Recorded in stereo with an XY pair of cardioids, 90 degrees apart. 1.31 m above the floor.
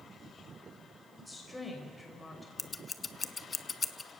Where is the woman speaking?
15° left, 5.5 m.